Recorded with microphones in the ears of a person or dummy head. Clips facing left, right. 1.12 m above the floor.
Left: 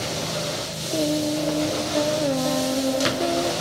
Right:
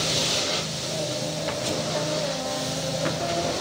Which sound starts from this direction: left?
Singing, at 0.9 s.